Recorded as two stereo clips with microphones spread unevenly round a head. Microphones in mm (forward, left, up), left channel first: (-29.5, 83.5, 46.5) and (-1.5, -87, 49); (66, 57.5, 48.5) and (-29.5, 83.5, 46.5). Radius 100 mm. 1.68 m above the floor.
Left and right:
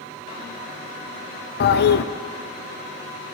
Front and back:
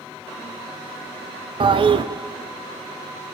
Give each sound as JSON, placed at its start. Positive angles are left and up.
{"t": 1.6, "sound": "a toilet flushing", "azimuth_deg": 130, "distance_m": 0.6}